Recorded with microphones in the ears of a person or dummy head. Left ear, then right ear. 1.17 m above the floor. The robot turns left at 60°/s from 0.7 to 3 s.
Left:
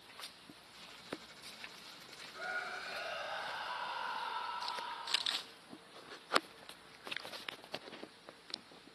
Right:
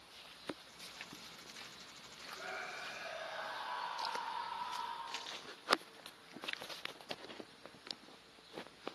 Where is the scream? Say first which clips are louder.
Left 4 dB; 100° left, 6 m; by 5.3 s 60° left, 6 m.